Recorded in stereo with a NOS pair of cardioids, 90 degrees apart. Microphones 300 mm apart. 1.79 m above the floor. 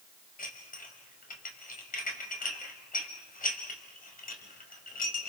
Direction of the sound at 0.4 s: 30° left.